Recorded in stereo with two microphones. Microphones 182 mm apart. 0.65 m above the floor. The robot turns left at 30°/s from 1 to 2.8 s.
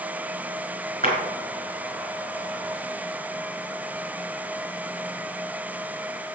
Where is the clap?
50° right (ahead or behind), 4 m.